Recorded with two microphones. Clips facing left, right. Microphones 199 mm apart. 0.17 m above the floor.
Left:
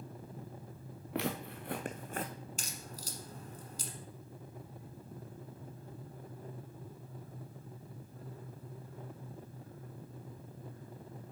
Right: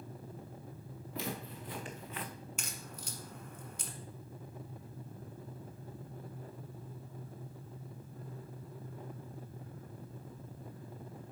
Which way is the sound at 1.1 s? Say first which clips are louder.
Left 4 dB; 70° left (ahead or behind).